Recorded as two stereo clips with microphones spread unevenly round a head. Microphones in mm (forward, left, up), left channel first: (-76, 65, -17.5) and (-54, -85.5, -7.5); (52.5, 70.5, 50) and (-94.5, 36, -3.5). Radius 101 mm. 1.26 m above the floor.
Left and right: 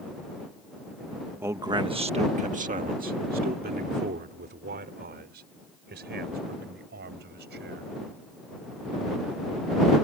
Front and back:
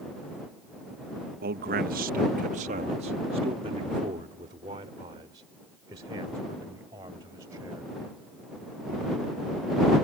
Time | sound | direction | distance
1.4 | a man speaking | 160° right | ?